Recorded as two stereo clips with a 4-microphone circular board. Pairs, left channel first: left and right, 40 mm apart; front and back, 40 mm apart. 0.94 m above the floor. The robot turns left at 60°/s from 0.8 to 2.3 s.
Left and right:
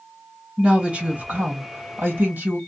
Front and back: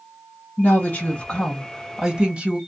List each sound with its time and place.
0.6 s a woman speaking: 30° right, 1.4 m; by 2.6 s 120° right, 1.4 m